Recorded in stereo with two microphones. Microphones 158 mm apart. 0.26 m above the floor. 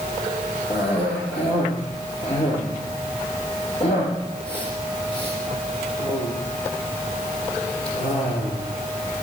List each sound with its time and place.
0.7 s a cough: 40° left (ahead or behind), 6 m